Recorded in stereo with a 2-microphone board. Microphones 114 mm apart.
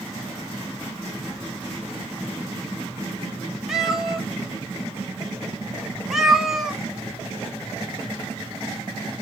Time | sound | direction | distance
3.7 | a cat meowing | 5° right (ahead or behind) | 0.9 m